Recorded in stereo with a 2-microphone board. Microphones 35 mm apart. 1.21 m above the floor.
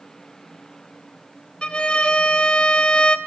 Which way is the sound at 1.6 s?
30° left (ahead or behind).